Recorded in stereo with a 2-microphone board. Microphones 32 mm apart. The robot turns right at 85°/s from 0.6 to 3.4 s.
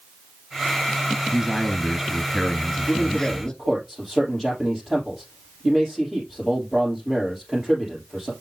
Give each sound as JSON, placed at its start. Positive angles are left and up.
{"t": 1.3, "sound": "a man speaking", "side_deg": -20, "distance_m": 1.3}
{"t": 2.9, "sound": "a man speaking", "azimuth_deg": 125, "distance_m": 3.0}